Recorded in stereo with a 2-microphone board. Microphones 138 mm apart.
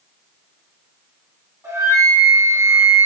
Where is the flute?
25° right (ahead or behind), 4 m.